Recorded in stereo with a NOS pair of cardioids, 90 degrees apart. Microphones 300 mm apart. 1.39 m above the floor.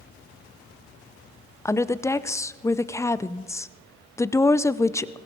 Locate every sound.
1.6 s a woman speaking: 10° left, 0.6 m